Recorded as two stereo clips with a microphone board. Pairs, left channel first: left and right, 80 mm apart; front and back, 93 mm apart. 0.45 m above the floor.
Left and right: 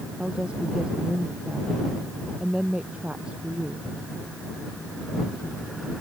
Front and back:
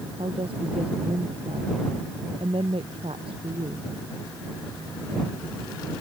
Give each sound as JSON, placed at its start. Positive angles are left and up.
{"t": 0.2, "sound": "a woman speaking", "azimuth_deg": -170}